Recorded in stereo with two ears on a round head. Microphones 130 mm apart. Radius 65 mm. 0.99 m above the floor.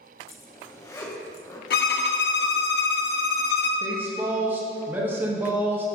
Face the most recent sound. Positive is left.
turn(degrees=-15)  # may be behind; listen again after turning